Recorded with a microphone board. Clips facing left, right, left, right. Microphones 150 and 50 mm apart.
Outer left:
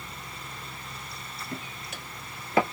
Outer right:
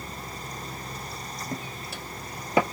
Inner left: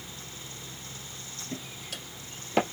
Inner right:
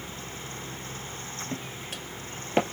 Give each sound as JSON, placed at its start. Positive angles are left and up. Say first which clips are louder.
{"t": 1.5, "sound": "footsteps", "louder": "outer right 2 dB, even", "side_deg": -40, "distance_m": 1.9}